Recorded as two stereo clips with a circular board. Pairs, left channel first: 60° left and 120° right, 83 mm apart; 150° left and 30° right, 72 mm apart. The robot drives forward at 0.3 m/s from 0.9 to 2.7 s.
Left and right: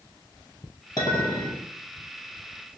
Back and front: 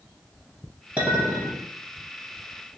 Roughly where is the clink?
Ahead left.